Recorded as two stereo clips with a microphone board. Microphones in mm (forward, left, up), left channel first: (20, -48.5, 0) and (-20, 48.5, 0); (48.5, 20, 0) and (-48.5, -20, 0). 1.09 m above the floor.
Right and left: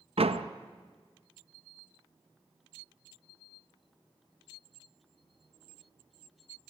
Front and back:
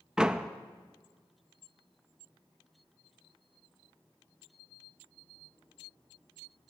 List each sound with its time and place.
0.2 s a door slam: 120° left, 0.6 m